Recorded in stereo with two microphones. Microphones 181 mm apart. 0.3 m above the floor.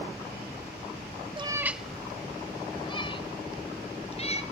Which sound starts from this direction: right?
A cat meowing, at 1.4 s.